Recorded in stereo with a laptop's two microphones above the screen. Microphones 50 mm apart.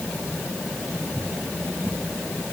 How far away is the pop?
I don't hear a pop.